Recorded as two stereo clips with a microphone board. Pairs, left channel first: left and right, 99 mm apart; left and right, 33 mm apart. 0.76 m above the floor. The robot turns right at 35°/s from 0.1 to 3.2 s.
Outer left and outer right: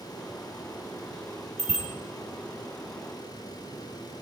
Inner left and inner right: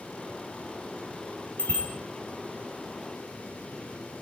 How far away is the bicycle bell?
About 4.5 m.